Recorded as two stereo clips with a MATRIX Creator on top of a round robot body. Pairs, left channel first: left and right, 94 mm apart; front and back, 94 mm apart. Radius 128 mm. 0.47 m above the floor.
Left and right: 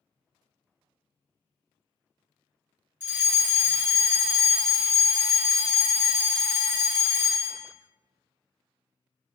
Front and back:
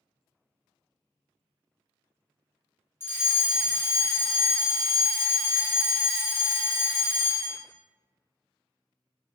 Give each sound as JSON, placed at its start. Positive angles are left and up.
{"t": 3.0, "sound": "a fire alarm", "azimuth_deg": -30, "distance_m": 2.0}